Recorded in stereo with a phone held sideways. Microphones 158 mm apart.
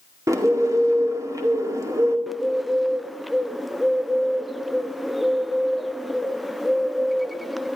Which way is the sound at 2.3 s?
Centre (ahead or behind).